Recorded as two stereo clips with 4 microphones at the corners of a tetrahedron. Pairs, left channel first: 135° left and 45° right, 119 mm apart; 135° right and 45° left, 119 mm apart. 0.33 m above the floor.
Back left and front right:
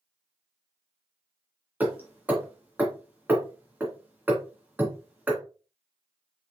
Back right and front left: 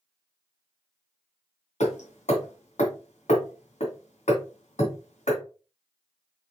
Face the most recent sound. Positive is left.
turn(degrees=-120)